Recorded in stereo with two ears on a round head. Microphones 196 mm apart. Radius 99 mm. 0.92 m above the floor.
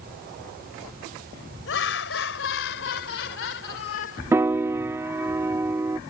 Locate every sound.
1.7 s laughter: 65° left (ahead or behind); by 4.2 s 60° left (ahead or behind)
4.3 s a piano: 10° right (ahead or behind)